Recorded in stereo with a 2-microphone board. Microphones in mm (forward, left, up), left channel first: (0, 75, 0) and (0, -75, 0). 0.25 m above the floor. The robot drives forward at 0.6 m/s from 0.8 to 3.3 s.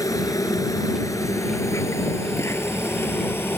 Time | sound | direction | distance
0.0 | an insect | 25° left (ahead or behind) | ?